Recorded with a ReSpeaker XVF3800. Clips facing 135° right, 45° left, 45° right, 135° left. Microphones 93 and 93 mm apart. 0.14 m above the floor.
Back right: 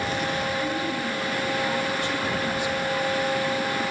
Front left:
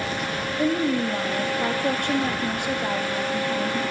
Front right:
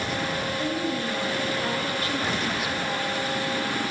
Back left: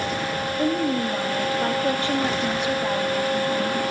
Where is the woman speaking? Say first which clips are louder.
Front left 5 dB, back left 8 dB; 75° left, 4.5 m.